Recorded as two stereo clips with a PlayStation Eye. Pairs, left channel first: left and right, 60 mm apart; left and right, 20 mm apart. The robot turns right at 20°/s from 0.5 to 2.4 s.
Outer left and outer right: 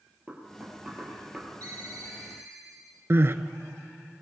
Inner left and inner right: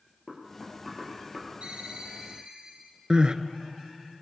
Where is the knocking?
30° right (ahead or behind), 3 m; by 1.5 s 10° right (ahead or behind), 3 m.